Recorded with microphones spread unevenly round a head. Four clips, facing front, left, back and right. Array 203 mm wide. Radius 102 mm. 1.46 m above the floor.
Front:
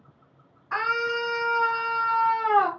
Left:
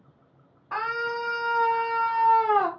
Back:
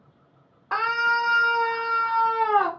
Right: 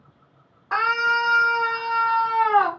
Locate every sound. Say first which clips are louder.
0.7 s a scream: right 7 dB, back 3 dB; 145° right, 0.9 m; by 2.7 s 120° left, 1.2 m